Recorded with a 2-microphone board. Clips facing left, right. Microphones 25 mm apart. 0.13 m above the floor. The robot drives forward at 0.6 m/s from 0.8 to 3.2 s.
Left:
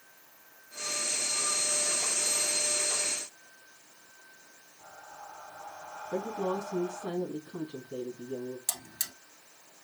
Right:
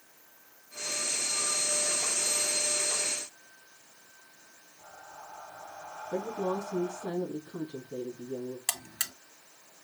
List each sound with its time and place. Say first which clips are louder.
4.8 s breathing: even; 25° left (ahead or behind), 1.6 m
6.1 s a woman speaking: even; 70° left (ahead or behind), 3.5 m
8.7 s a buzzer: right 2 dB; 55° right (ahead or behind), 1.2 m